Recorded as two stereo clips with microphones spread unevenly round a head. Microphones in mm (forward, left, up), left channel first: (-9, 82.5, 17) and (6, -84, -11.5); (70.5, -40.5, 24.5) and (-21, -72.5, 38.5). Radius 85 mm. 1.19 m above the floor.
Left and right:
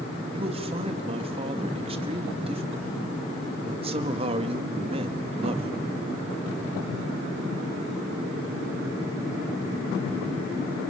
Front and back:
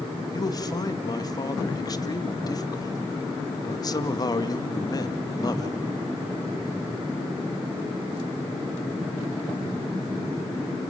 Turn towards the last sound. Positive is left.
turn(degrees=-30)